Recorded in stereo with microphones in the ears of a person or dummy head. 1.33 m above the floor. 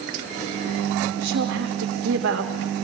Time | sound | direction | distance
1.1 | a woman speaking | 65° right (ahead or behind) | 3.5 m